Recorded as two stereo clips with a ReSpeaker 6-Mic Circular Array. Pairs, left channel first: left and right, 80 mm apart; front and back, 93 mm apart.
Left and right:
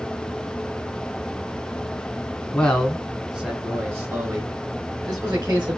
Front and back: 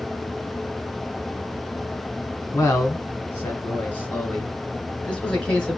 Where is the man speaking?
25° left, 1.1 m; by 5.8 s 75° right, 2.0 m.